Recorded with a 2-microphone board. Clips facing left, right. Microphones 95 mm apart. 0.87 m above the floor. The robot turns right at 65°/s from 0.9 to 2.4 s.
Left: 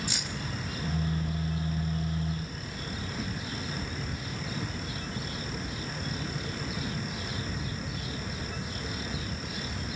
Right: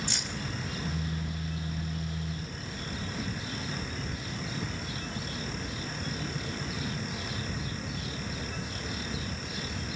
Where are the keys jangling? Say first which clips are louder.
Even; 5° left (ahead or behind), 2.5 m.